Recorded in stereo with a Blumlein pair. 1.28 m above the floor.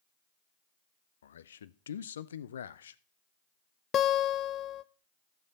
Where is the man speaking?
65° left, 0.5 m.